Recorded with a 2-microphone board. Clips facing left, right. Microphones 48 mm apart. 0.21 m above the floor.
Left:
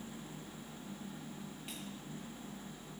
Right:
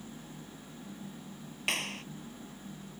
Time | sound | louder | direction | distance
1.7 | a clap | right 12 dB | 70° right (ahead or behind) | ?